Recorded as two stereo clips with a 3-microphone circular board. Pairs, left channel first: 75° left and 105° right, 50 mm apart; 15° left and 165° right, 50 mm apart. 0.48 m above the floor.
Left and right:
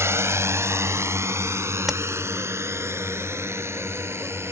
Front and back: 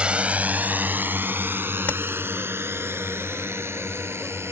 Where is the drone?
100° right; by 4.5 s 135° right.